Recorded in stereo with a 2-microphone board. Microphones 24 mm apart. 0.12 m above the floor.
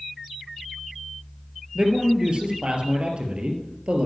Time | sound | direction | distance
1.8 | a man speaking | 45° right (ahead or behind) | 3 m